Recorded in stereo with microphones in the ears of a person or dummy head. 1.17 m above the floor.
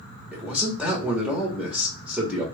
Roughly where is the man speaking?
Centre.